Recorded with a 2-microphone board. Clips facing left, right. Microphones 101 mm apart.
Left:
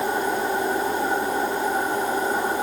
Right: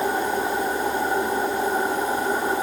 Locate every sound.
Only background noise.